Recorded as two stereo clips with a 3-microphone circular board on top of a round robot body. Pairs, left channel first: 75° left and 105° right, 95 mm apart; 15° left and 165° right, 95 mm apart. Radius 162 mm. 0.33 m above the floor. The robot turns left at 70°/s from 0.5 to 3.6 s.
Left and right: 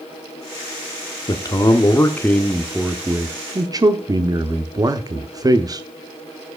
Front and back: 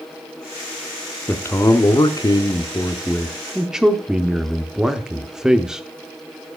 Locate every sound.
1.3 s a man speaking: 80° left, 1.0 m; by 5.8 s 85° right, 1.0 m